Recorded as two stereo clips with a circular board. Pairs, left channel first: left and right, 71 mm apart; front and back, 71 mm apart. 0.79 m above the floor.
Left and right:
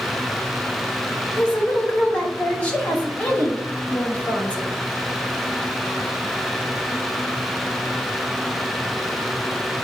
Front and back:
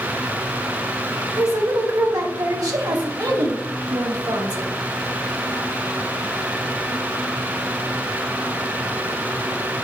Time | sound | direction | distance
1.4 | a woman speaking | 160° left | 1.9 m